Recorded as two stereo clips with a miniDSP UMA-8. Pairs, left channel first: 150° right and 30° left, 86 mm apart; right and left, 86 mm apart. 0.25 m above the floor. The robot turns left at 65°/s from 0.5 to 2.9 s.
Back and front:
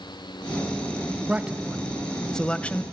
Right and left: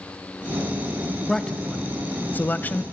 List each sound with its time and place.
1.3 s a man speaking: 15° right, 0.9 m; by 2.8 s 115° right, 0.9 m